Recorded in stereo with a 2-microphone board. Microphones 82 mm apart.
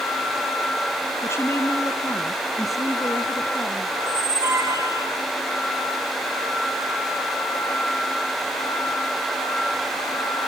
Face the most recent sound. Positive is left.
turn(degrees=-40)  # may be behind; listen again after turning